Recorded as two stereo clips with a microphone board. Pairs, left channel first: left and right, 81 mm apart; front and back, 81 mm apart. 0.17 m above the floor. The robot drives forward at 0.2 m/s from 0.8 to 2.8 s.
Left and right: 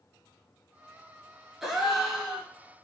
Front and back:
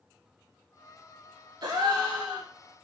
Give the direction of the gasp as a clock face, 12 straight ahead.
6 o'clock.